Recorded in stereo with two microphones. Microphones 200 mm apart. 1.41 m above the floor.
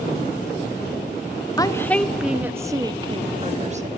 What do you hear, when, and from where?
1.6 s a woman speaking: 20° left (ahead or behind), 1.0 m; by 3.9 s 40° right (ahead or behind), 1.6 m